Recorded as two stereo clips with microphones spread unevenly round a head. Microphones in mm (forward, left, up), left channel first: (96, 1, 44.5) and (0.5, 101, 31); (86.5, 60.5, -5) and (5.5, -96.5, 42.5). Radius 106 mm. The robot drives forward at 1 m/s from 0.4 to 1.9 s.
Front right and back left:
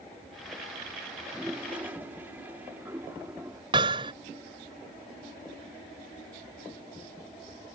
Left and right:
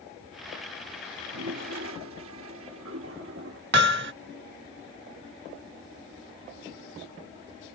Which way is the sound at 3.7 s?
155° right.